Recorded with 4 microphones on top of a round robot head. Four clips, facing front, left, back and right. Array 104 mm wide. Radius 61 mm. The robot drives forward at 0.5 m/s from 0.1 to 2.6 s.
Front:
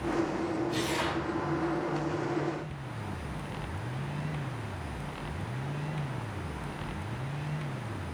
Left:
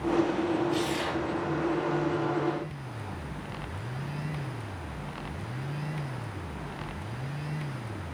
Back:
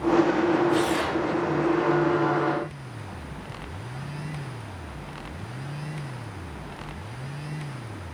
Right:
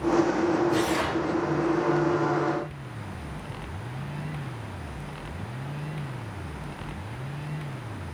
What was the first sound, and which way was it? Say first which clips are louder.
Tearing paper: right 4 dB, back 7 dB; 140° right.